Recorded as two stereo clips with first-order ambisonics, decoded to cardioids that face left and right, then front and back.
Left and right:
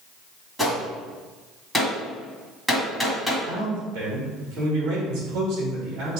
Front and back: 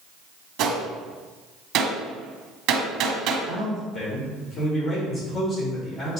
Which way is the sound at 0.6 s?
Straight behind.